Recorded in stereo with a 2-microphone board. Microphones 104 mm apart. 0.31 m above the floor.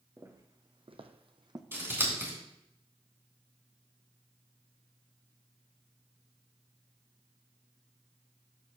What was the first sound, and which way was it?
Footsteps, 30° right (ahead or behind).